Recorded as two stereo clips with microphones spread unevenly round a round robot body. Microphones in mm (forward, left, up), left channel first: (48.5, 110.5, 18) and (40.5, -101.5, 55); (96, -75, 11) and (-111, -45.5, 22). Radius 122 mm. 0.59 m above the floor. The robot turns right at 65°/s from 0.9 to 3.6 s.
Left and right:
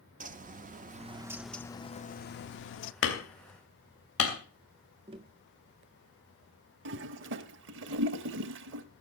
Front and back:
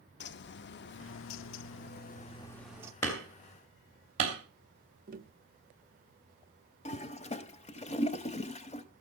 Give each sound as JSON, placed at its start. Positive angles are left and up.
{"t": 0.2, "sound": "a bird", "azimuth_deg": -35, "distance_m": 0.7}
{"t": 3.0, "sound": "hammering", "azimuth_deg": 70, "distance_m": 2.5}
{"t": 5.1, "sound": "tapping", "azimuth_deg": -160, "distance_m": 0.7}
{"t": 6.8, "sound": "a toilet flushing", "azimuth_deg": -70, "distance_m": 0.8}